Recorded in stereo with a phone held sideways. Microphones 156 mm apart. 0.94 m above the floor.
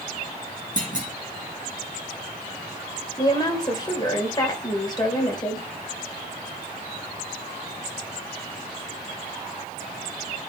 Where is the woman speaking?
25° left (ahead or behind), 3 m.